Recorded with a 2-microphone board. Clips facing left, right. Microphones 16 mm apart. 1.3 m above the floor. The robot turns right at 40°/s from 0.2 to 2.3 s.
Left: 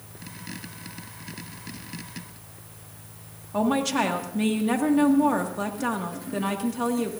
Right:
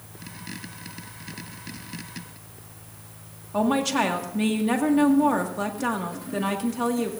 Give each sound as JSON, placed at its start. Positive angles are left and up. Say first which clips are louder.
{"t": 3.5, "sound": "a woman speaking", "louder": "right 1 dB", "side_deg": -5, "distance_m": 1.7}